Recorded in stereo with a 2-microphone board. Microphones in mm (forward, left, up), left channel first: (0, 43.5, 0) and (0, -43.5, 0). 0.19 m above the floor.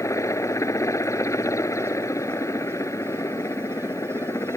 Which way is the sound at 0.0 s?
40° left (ahead or behind).